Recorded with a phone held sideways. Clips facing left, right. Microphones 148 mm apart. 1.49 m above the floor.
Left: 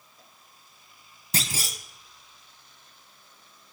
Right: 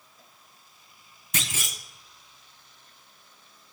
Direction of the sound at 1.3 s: 35° left (ahead or behind).